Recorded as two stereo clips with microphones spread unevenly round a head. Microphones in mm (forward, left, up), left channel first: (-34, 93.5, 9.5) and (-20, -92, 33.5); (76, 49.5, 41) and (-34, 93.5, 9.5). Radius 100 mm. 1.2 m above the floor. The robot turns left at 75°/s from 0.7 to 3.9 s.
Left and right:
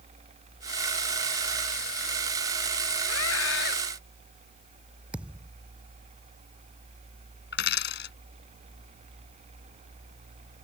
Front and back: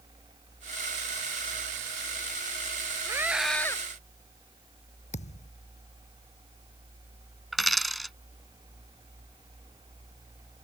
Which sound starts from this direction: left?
A scream, at 3.0 s.